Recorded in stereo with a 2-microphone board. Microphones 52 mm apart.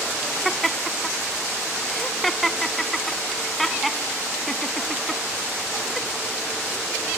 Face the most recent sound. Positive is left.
turn(degrees=5)  # may be behind; listen again after turning